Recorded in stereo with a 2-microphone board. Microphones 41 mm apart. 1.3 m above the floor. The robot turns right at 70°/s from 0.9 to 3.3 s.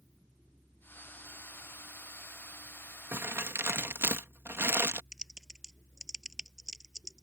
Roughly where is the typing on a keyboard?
Centre.